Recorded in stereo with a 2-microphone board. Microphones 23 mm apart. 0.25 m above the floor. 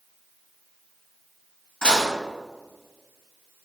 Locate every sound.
1.8 s dishes clattering: 60° left (ahead or behind), 1.5 m